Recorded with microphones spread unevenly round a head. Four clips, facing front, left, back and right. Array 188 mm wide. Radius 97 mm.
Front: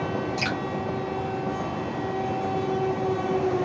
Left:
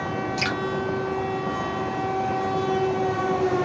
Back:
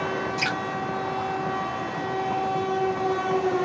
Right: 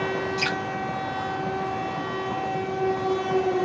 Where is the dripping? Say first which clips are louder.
Left 1 dB, even; 115° left, 1.8 m.